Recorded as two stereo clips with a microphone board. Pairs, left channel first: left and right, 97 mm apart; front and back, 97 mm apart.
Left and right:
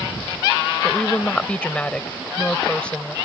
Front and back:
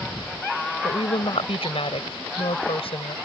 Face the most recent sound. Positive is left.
turn(degrees=10)